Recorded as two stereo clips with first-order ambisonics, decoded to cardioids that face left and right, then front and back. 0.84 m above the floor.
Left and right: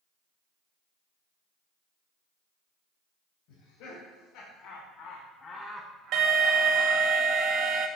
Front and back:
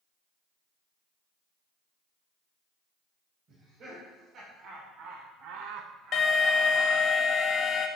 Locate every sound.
3.5 s laughter: 120° left, 4 m; by 7.0 s 95° right, 1.9 m
6.1 s an alarm: 50° right, 1.1 m